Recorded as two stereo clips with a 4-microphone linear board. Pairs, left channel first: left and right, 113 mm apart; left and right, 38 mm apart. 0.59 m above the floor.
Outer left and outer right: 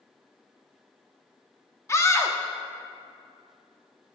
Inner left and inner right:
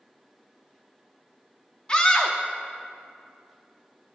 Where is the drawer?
I don't hear a drawer.